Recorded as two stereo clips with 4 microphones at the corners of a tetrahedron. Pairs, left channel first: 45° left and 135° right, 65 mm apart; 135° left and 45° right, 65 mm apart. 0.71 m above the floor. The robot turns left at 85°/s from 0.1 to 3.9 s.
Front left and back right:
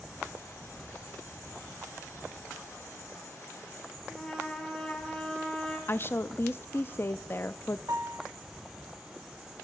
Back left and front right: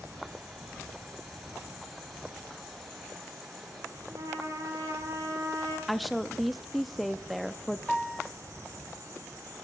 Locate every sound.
4.1 s a trumpet: 30° right, 2.5 m
5.9 s a woman speaking: 45° left, 0.5 m
7.9 s a piano: 140° right, 1.1 m